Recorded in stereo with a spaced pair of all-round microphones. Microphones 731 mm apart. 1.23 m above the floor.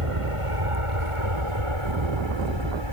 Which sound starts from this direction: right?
An aircraft, at 0.0 s.